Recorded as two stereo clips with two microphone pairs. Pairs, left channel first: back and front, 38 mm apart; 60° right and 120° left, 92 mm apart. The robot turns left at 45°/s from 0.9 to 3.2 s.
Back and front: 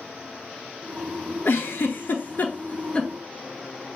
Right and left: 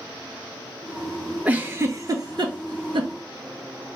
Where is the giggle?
170° right, 0.5 m; by 3.1 s 120° left, 0.5 m.